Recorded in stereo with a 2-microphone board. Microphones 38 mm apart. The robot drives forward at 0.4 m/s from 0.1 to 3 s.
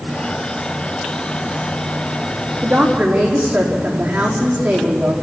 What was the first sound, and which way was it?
A woman speaking, 25° right (ahead or behind).